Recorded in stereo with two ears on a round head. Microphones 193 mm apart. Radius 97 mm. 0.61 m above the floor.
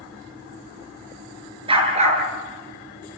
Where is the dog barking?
25° right (ahead or behind), 4 m; by 3.2 s 50° right (ahead or behind), 4.5 m.